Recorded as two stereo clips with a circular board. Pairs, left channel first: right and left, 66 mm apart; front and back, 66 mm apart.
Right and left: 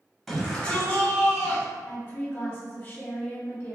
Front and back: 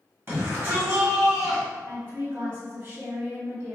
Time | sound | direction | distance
0.3 | a shout | 175° right | 1.5 m
1.9 | a woman speaking | 130° right | 1.4 m